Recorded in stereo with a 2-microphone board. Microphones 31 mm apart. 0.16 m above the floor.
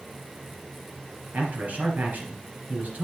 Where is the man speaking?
60° right (ahead or behind), 3 m.